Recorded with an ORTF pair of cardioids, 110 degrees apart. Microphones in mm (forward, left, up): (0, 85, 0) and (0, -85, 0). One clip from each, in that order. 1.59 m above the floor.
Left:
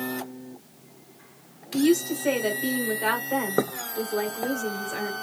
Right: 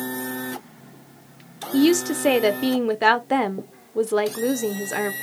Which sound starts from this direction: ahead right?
A woman speaking, at 1.7 s.